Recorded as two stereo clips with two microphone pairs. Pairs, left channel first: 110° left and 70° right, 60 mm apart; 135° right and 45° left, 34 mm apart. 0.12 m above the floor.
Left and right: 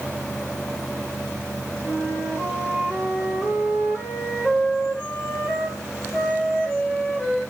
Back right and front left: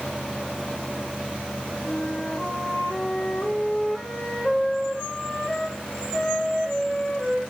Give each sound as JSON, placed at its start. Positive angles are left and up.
{"t": 1.8, "sound": "a flute", "azimuth_deg": 165, "distance_m": 6.5}